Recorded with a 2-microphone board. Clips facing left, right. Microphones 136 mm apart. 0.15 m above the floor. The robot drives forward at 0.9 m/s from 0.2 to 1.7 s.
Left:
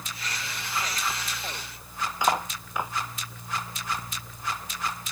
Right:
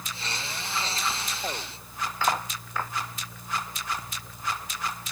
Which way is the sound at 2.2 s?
15° left (ahead or behind).